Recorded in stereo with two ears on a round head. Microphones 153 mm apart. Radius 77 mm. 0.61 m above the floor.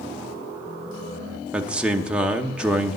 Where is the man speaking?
5° right (ahead or behind), 0.8 m.